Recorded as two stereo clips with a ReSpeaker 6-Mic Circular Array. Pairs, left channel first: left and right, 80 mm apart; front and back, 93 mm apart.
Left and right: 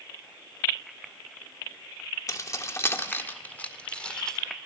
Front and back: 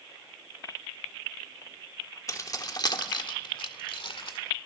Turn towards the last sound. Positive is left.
turn(degrees=10)